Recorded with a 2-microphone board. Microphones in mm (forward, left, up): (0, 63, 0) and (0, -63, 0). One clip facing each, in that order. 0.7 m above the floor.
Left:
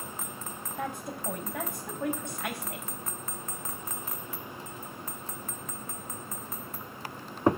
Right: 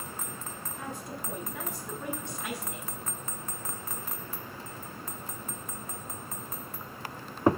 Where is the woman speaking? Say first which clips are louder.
Left 5 dB; 60° left (ahead or behind), 4.5 m.